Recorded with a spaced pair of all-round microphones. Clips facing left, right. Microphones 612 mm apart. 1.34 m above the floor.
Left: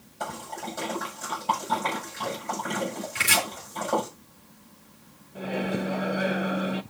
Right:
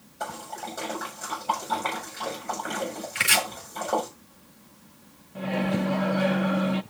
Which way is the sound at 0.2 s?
25° left (ahead or behind).